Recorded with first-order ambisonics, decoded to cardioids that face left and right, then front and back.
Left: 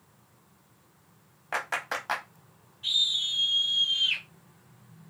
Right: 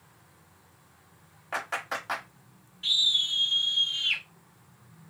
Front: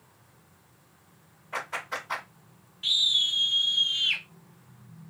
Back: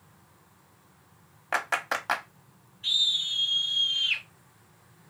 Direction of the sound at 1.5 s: 165° left.